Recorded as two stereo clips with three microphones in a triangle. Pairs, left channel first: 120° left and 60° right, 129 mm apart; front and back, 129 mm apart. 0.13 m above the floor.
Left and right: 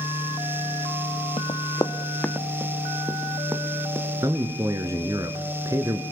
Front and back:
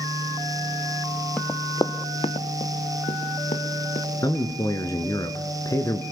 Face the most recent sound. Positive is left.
turn(degrees=-25)